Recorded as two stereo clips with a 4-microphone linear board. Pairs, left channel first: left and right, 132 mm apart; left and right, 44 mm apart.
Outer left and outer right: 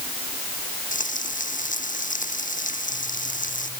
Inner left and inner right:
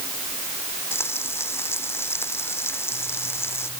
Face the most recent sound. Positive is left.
turn(degrees=75)  # may be behind; listen again after turning